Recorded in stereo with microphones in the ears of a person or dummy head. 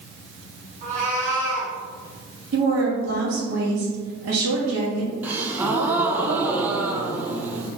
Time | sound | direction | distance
0.8 | a cat meowing | 45° right (ahead or behind) | 1.3 m
2.5 | a woman speaking | 80° right | 1.8 m
5.2 | a gasp | 5° right (ahead or behind) | 0.5 m